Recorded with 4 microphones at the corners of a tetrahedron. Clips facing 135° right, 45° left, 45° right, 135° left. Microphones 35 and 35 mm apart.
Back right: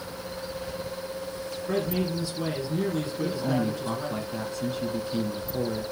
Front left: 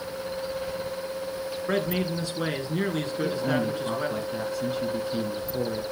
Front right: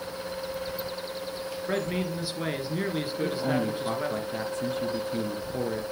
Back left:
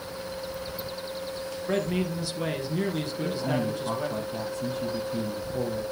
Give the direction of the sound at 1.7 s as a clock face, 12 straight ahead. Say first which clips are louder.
Even, back left 2 dB; 11 o'clock.